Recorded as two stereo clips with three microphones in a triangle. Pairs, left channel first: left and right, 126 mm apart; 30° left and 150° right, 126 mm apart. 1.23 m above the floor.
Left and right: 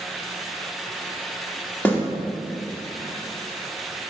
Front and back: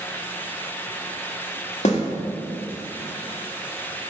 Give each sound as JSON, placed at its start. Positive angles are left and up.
{"t": 1.9, "sound": "a snare drum", "azimuth_deg": 15, "distance_m": 1.5}